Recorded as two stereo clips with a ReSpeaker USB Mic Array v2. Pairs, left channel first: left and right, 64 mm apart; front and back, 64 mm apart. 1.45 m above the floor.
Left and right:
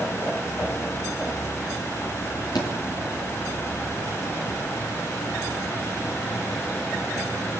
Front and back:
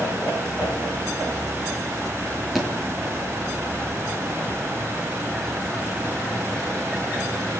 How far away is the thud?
About 8 m.